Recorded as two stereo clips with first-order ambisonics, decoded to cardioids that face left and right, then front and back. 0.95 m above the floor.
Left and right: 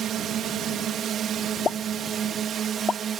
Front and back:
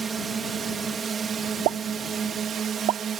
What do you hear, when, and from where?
0.0 s a drone: 120° right; by 3.2 s 135° right
1.6 s a pop: 160° left